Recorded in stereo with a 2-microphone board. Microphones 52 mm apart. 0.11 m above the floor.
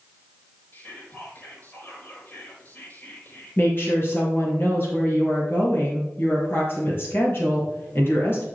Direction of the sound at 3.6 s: 45° left (ahead or behind).